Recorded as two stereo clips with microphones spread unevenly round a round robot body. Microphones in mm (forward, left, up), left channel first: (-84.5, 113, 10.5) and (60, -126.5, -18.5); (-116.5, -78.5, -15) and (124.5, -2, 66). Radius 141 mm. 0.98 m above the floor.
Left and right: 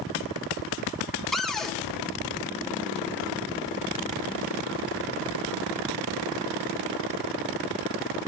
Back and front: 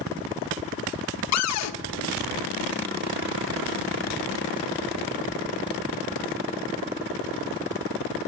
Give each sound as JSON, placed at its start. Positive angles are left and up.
{"t": 1.3, "sound": "a cupboard door", "azimuth_deg": -150, "distance_m": 0.6}